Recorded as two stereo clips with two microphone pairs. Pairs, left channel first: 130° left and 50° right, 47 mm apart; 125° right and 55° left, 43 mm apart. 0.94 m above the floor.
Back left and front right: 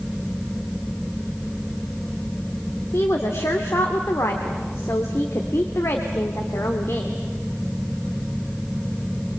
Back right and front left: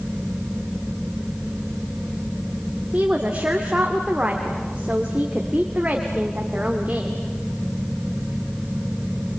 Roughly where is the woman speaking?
Behind left.